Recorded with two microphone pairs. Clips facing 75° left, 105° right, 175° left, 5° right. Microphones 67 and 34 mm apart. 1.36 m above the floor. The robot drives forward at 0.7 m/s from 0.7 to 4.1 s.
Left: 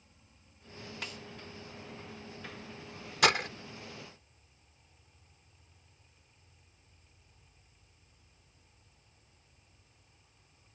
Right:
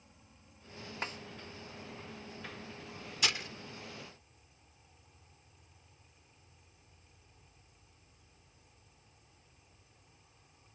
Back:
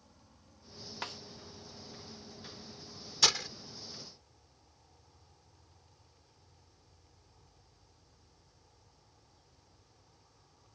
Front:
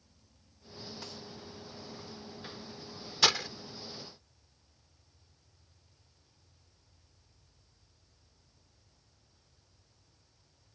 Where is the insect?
175° right.